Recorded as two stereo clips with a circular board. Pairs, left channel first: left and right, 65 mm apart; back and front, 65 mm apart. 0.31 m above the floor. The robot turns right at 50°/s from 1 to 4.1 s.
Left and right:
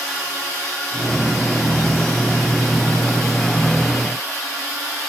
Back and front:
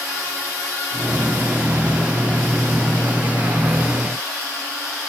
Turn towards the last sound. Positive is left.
No sound to turn to.